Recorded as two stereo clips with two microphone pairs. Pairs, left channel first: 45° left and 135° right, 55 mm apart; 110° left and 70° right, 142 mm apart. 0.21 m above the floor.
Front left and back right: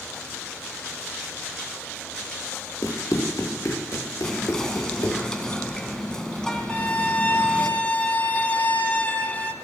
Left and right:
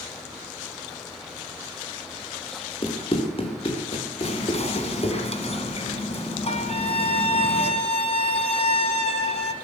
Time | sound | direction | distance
2.8 | running footsteps | 65° left | 3 m
4.2 | whispering | 120° left | 2.5 m
6.7 | a violin | 95° left | 1.0 m